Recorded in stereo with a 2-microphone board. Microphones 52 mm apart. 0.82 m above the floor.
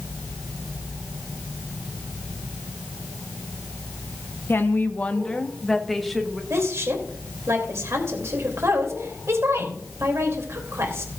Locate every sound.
4.5 s a woman speaking: 45° left (ahead or behind), 0.9 m; by 6.4 s centre (ahead or behind), 1.7 m
6.5 s a woman speaking: 60° right (ahead or behind), 3 m